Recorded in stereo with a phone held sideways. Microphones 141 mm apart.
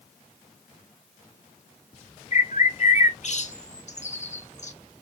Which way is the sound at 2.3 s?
50° left (ahead or behind).